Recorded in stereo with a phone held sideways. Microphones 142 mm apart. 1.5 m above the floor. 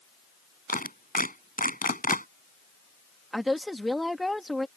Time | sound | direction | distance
0.7 | a clap | 85° left | ?
3.3 | a woman speaking | centre (ahead or behind) | ?